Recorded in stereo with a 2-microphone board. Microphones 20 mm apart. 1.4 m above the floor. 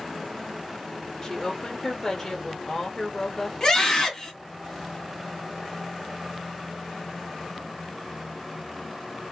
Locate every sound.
1.2 s a woman speaking: 35° left (ahead or behind), 1.3 m
3.6 s a scream: 30° left (ahead or behind), 1.9 m